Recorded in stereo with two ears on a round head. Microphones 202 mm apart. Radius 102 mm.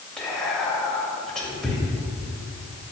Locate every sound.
0.2 s whispering: 5° left (ahead or behind), 1.8 m